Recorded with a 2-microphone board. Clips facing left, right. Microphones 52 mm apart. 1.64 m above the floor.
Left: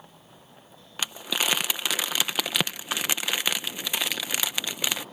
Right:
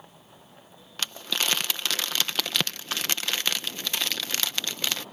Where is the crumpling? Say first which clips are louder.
Left 1 dB; 10° left (ahead or behind).